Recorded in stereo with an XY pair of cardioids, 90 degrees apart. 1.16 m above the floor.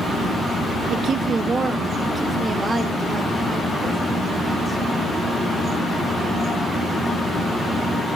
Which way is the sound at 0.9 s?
70° right.